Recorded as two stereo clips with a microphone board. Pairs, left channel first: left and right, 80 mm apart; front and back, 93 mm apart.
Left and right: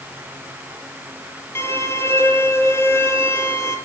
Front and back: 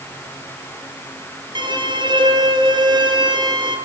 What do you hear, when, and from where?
1.6 s a violin: 150° left, 3.5 m